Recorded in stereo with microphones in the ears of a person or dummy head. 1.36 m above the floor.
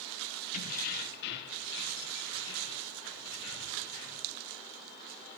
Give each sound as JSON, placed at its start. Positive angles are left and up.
{"t": 0.5, "sound": "keys jangling", "side_deg": 50, "distance_m": 1.1}